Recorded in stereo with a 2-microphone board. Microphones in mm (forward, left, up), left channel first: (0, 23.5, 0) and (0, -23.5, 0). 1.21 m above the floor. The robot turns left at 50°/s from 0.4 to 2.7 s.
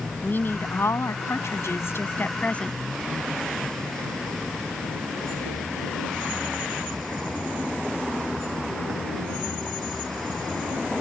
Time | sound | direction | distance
0.2 | a woman speaking | 135° left | ?